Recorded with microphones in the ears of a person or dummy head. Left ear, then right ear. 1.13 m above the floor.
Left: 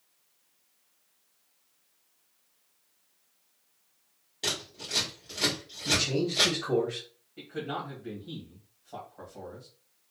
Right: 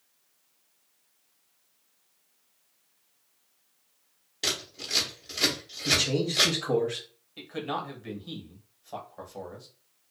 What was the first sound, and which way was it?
Scissors, 15° right (ahead or behind).